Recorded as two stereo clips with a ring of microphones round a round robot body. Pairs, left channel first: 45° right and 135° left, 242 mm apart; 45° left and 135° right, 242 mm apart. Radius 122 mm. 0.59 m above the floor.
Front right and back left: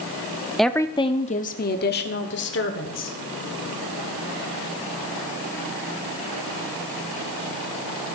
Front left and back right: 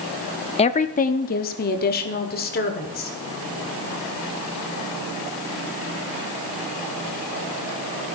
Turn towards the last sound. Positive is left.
turn(degrees=-5)